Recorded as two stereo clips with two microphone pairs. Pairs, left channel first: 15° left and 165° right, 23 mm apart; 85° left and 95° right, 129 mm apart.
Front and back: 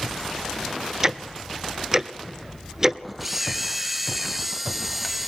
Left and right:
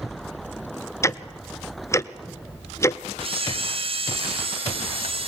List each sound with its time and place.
1.0 s ticking: 140° left, 0.5 m
3.2 s a camera shutter: 80° right, 0.9 m